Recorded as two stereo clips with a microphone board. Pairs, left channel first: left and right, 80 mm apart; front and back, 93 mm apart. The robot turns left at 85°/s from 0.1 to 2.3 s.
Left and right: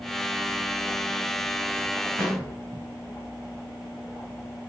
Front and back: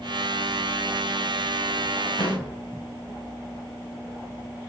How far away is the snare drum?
About 2 m.